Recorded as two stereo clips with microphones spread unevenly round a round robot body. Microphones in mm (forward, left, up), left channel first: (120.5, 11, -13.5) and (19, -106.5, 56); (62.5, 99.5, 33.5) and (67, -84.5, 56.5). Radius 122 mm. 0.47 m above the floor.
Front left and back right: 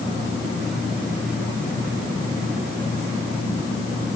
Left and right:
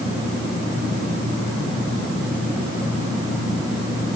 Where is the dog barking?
I don't hear a dog barking.